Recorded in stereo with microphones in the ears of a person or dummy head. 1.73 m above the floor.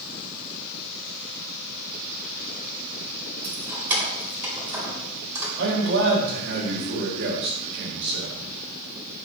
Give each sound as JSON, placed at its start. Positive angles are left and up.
{"t": 3.4, "sound": "keys jangling", "side_deg": -10, "distance_m": 1.5}
{"t": 5.6, "sound": "a man speaking", "side_deg": -60, "distance_m": 1.4}